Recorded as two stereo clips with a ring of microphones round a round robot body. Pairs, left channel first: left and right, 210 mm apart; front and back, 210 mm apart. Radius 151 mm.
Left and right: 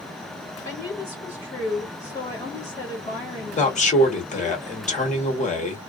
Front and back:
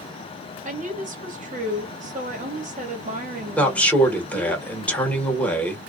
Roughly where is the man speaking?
Left.